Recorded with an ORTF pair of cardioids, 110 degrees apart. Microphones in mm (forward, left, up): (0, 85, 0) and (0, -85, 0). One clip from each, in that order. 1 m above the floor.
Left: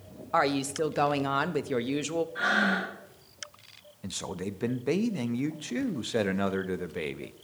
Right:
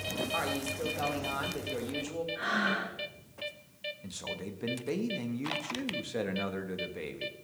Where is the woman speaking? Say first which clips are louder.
Left 11 dB; 50° left, 0.9 m.